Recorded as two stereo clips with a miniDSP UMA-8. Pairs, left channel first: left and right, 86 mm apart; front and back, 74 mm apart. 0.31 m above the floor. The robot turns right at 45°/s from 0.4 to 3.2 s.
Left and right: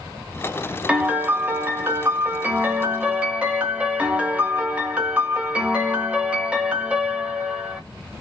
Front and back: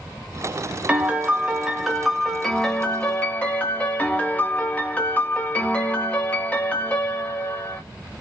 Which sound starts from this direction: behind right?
A piano, at 0.9 s.